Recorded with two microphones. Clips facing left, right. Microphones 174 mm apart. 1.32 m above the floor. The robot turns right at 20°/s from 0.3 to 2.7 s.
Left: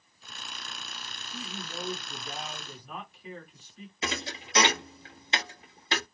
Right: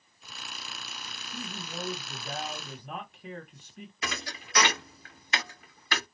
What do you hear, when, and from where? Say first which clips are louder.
1.3 s a man speaking: even; 35° right (ahead or behind), 1.1 m; by 3.9 s 65° right (ahead or behind), 1.1 m
4.0 s a thud: left 4 dB; 25° left (ahead or behind), 0.6 m